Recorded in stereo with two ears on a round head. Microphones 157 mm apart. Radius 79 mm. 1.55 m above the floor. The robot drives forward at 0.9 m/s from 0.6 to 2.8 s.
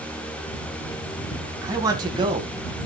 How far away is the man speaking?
About 2.5 m.